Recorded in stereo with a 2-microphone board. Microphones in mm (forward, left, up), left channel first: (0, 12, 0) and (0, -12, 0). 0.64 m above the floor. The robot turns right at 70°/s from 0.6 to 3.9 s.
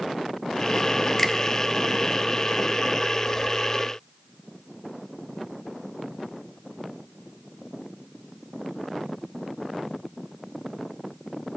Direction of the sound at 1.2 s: 20° left (ahead or behind).